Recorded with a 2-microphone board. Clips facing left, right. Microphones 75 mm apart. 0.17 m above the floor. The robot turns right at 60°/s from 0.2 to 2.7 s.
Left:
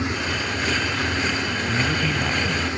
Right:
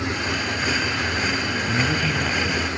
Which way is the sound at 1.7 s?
10° right (ahead or behind).